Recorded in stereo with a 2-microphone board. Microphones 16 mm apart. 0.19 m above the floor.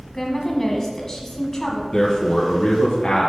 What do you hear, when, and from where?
0.1 s a woman speaking: 25° left (ahead or behind), 1.5 m
1.9 s a man speaking: 30° left (ahead or behind), 1.4 m